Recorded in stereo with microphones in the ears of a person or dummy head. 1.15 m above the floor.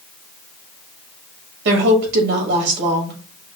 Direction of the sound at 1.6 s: 65° right (ahead or behind).